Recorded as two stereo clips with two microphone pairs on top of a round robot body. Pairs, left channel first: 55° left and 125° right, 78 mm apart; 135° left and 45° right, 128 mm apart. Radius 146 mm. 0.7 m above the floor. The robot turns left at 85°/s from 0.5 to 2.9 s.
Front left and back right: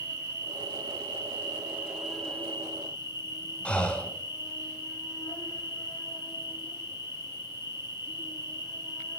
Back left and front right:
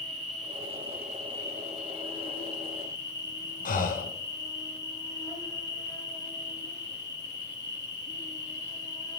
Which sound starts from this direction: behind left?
Breathing, at 3.6 s.